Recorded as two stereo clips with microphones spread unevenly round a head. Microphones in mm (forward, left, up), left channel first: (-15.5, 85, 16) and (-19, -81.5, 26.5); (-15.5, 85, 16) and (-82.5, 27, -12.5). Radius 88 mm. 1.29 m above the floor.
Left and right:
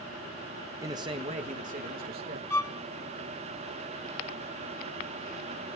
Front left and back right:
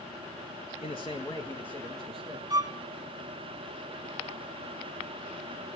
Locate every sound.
0.8 s a man speaking: 15° right, 1.2 m; by 2.4 s 55° right, 2 m
2.5 s a violin: 165° left, 1.3 m